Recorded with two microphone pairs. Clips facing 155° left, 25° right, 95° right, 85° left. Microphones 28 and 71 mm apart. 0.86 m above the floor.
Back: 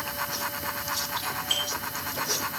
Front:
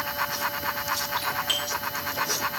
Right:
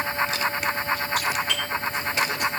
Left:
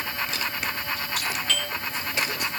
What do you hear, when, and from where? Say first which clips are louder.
1.2 s a doorbell: front 2 dB, right 3 dB; 20° right, 6.5 m